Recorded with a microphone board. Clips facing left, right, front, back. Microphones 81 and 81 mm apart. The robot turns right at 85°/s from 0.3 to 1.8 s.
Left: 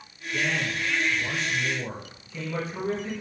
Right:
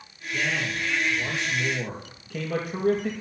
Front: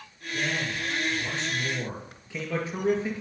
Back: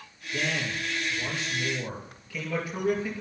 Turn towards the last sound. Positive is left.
turn(degrees=-65)